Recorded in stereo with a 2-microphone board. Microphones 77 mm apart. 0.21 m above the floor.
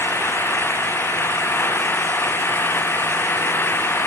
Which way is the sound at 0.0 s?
30° left (ahead or behind).